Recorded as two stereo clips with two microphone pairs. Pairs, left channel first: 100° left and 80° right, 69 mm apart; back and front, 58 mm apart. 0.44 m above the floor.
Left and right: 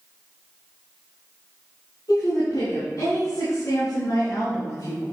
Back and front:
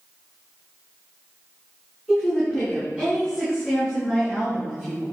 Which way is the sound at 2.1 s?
75° left.